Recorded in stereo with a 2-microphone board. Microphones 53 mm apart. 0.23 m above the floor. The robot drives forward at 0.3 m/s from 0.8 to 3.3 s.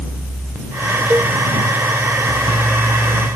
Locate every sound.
1.1 s a cowbell: 30° right (ahead or behind)